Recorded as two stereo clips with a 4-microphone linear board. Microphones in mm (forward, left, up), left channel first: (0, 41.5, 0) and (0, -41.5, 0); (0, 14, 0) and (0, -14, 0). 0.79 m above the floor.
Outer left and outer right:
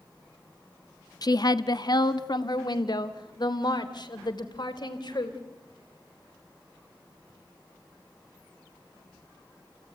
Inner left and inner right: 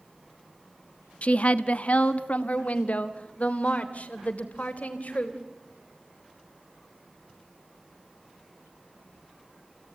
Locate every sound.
1.2 s a woman speaking: 50° left (ahead or behind), 0.9 m; by 5.4 s 60° left (ahead or behind), 3 m